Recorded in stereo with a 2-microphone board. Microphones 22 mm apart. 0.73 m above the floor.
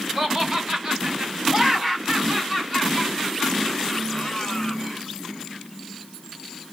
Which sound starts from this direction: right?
Laughter, at 0.2 s.